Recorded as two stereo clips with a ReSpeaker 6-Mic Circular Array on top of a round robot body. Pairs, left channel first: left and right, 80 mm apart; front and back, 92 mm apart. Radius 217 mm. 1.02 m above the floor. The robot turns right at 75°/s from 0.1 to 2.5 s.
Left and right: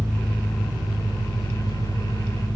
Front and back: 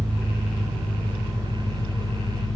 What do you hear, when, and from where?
0.0 s an engine running: 145° left, 1.2 m; by 2.6 s 35° right, 1.2 m